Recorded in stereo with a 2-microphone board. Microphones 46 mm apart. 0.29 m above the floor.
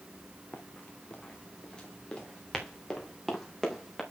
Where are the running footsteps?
35° left (ahead or behind), 3 m; by 4.0 s 5° left (ahead or behind), 5.5 m.